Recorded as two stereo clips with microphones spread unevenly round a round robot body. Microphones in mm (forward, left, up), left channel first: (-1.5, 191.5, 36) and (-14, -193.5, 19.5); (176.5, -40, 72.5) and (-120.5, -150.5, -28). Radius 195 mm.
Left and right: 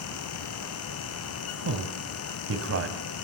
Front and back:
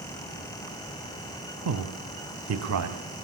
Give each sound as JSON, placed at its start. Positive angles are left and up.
{"t": 1.6, "sound": "a man speaking", "azimuth_deg": -145, "distance_m": 3.0}